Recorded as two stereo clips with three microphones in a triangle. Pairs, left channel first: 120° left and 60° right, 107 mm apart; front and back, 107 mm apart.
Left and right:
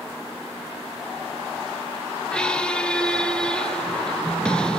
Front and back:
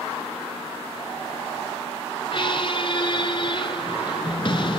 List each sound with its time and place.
2.3 s a squeak: 40° left, 0.6 m